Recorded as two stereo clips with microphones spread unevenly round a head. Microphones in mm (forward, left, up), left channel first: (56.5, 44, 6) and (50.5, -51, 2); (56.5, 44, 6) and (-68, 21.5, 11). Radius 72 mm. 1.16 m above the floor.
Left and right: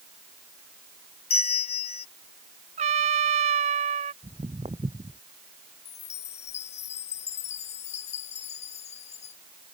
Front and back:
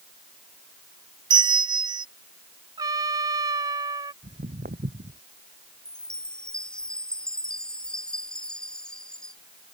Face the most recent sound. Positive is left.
turn(degrees=95)